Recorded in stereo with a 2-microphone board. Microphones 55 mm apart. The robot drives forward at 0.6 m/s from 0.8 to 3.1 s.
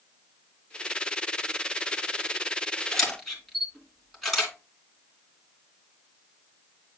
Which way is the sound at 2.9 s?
5° left (ahead or behind).